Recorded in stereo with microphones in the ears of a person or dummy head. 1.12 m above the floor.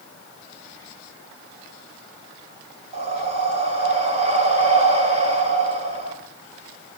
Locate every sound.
2.9 s breathing: 40° right (ahead or behind), 3.5 m